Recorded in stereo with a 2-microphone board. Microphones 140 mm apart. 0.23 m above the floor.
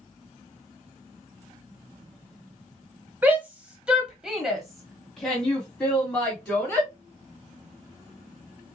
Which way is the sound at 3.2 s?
15° right (ahead or behind).